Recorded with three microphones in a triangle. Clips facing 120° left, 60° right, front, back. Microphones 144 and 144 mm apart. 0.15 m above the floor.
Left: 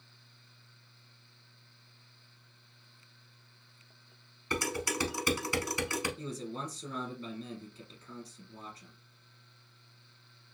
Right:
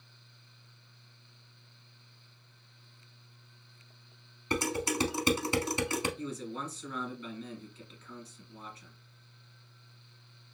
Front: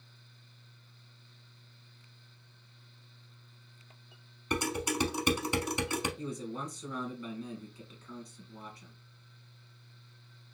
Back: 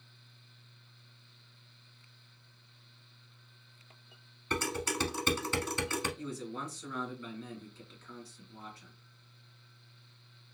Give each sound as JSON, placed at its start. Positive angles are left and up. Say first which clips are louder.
{"t": 4.5, "sound": "dishes clattering", "louder": "right 3 dB, front 2 dB", "azimuth_deg": -50, "distance_m": 0.8}
{"t": 6.2, "sound": "a man speaking", "louder": "right 1 dB, front 2 dB", "azimuth_deg": 65, "distance_m": 1.7}